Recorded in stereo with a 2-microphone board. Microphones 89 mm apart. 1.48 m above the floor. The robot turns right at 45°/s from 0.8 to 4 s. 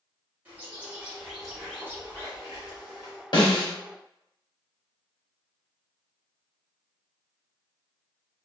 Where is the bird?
25° right, 1.9 m; by 3.2 s 85° left, 1.9 m.